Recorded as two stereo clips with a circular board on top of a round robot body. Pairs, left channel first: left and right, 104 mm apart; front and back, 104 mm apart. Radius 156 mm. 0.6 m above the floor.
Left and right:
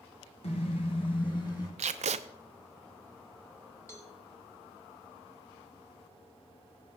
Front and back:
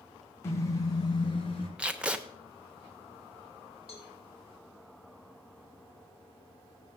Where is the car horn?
65° left, 3 m; by 1.7 s 35° left, 4 m.